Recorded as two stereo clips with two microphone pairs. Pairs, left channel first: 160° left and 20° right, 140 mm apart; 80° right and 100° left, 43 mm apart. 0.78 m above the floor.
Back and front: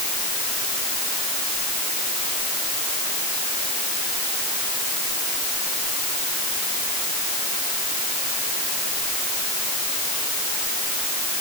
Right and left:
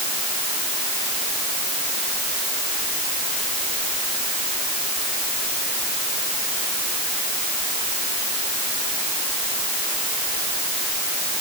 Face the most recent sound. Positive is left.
No sound to turn to.